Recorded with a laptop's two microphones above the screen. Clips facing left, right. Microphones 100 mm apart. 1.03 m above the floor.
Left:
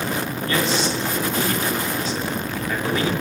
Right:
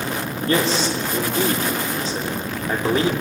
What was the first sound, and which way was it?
A man speaking, 35° right (ahead or behind).